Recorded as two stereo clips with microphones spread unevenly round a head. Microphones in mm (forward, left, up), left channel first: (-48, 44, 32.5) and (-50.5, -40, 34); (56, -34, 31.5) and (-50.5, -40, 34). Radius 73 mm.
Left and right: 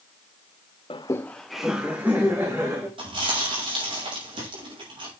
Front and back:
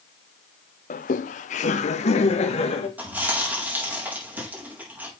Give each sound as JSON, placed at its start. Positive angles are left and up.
{"t": 0.9, "sound": "laughter", "azimuth_deg": 35, "distance_m": 0.5}
{"t": 3.0, "sound": "chewing", "azimuth_deg": -105, "distance_m": 4.5}